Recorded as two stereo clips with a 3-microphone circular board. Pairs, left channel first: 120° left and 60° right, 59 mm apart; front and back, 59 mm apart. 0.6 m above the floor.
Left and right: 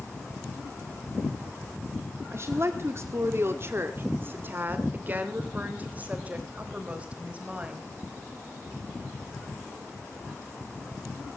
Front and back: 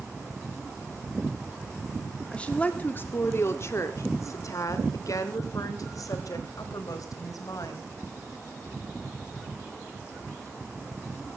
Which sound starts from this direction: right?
A woman speaking, at 2.3 s.